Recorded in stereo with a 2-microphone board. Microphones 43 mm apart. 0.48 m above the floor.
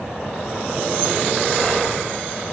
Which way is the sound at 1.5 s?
20° right (ahead or behind).